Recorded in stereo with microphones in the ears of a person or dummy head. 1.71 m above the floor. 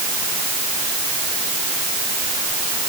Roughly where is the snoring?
No snoring in this recording.